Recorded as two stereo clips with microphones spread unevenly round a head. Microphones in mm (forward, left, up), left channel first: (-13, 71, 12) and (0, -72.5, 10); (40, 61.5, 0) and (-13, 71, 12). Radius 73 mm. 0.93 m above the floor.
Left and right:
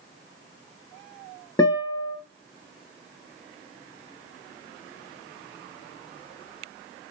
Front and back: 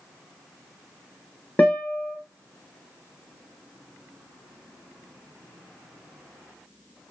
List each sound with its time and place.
1.6 s a guitar: 35° left, 0.9 m